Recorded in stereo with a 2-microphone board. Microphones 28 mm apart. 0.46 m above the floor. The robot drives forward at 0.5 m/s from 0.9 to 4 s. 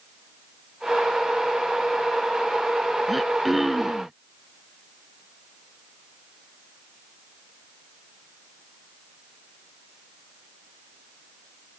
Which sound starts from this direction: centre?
Throat clearing, at 3.1 s.